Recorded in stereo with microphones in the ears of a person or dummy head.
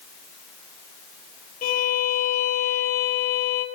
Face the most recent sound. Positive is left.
turn(degrees=45)  # may be behind; listen again after turning